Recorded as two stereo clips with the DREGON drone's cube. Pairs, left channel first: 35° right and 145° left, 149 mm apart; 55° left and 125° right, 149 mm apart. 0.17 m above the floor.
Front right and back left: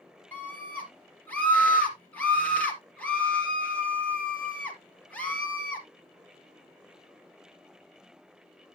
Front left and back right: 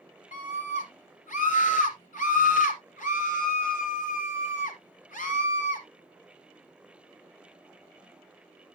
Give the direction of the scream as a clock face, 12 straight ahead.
11 o'clock.